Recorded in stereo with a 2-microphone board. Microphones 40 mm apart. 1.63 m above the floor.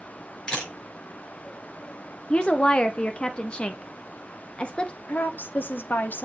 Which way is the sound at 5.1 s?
55° left (ahead or behind).